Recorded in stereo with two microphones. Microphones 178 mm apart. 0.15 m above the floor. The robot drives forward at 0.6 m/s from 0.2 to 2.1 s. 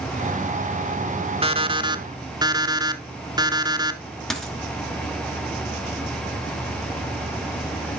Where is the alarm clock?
30° right (ahead or behind), 0.5 m; by 4.0 s 25° right (ahead or behind), 0.7 m.